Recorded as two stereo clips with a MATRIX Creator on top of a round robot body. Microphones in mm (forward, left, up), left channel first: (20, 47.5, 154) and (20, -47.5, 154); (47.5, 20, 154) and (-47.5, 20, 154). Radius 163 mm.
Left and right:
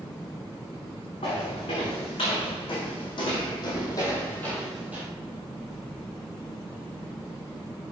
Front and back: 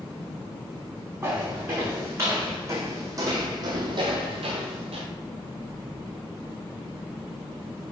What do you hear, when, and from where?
1.2 s footsteps: 110° left, 3.5 m; by 5.0 s 160° right, 1.0 m